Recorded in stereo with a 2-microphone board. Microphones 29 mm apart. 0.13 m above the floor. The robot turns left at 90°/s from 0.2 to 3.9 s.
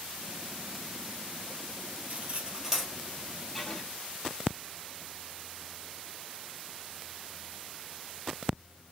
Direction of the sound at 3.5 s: Centre (ahead or behind).